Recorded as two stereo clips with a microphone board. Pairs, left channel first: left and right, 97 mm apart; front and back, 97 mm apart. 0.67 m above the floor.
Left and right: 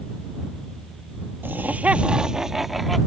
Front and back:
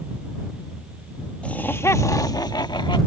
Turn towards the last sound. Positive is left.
turn(degrees=0)